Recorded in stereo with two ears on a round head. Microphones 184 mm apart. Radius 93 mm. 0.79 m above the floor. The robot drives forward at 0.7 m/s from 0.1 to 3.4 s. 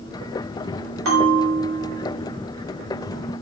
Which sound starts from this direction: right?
A bell, at 1.1 s.